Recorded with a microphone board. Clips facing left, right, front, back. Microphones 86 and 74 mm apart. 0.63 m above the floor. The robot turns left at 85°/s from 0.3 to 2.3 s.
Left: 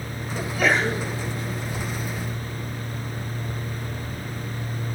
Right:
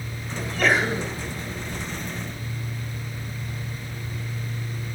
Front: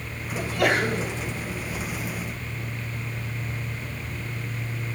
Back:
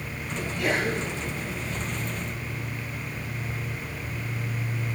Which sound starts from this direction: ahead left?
A sneeze, at 0.3 s.